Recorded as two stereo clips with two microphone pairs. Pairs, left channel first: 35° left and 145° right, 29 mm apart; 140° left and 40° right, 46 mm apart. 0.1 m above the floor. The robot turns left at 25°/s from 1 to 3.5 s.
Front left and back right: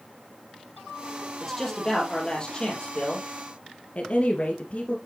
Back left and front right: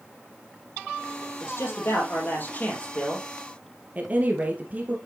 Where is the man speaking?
120° left, 4 m; by 3.3 s 75° left, 4 m.